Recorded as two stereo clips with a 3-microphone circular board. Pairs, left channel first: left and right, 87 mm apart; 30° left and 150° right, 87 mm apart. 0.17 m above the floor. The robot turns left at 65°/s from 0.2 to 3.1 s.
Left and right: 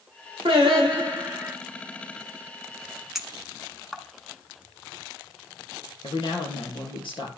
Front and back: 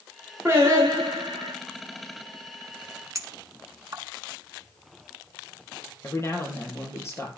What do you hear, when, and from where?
0.5 s singing: 85° right, 6 m; by 1.5 s 155° right, 6 m
3.1 s a clink: 175° right, 1.1 m
6.0 s a man speaking: 85° left, 3.5 m